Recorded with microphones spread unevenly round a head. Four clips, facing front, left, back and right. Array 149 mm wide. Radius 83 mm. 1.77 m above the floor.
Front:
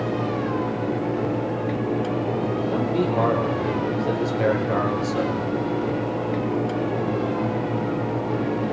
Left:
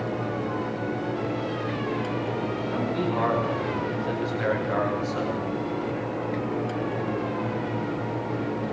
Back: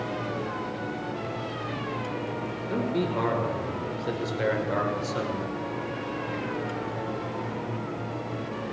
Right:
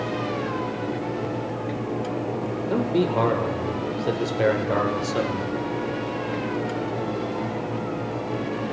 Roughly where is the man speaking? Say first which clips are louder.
Right 7 dB, front 2 dB; right.